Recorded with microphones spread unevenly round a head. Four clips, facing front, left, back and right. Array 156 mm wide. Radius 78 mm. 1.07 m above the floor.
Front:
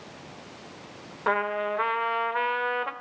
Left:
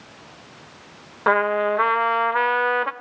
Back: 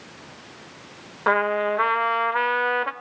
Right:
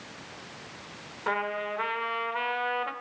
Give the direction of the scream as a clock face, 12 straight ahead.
I don't hear a scream.